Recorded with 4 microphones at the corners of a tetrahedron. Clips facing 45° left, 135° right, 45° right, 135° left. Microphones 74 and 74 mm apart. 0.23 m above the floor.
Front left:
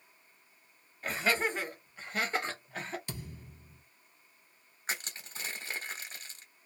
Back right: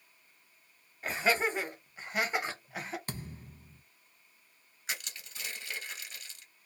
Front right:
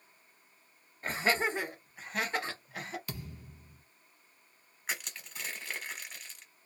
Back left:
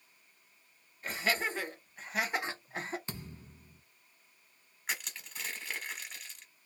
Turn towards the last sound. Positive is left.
turn(degrees=45)